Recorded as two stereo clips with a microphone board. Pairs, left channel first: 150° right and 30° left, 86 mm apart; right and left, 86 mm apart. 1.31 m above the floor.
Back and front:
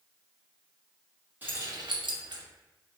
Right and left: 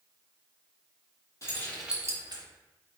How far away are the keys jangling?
About 0.9 m.